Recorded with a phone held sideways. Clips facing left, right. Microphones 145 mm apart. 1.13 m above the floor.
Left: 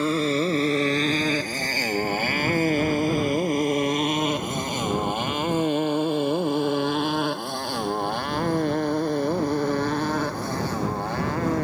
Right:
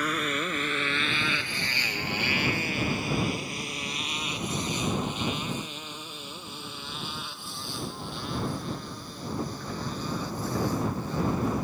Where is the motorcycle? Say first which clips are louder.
Left 8 dB; 30° left (ahead or behind); by 11.7 s 70° left (ahead or behind).